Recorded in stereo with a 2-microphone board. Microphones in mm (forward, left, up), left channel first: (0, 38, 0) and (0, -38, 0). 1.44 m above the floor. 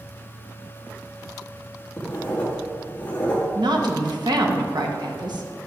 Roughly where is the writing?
Centre.